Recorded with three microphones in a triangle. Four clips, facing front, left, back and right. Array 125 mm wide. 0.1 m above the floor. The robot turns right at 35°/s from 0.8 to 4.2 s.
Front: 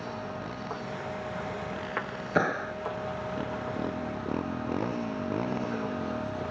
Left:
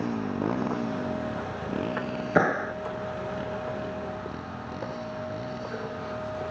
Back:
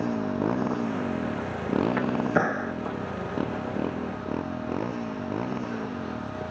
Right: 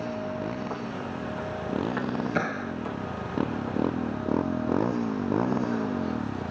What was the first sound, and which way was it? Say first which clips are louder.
A motorcycle: left 3 dB, back 10 dB; 150° left.